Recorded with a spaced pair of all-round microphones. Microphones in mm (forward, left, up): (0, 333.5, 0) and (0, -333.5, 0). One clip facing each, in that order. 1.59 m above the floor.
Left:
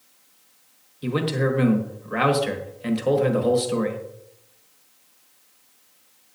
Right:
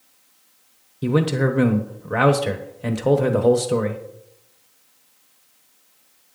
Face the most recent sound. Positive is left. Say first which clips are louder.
# right 4 dB
turn(degrees=-70)  # may be behind; listen again after turning